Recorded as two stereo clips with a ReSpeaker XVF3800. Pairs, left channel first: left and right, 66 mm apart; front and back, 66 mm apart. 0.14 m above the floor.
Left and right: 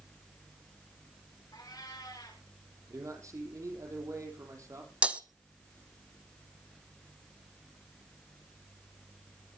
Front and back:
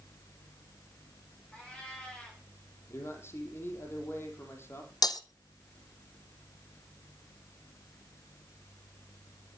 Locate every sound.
1.5 s a cat meowing: 75° left, 7 m
2.9 s a man speaking: 55° right, 4.5 m
5.0 s breaking glass: 20° right, 1.2 m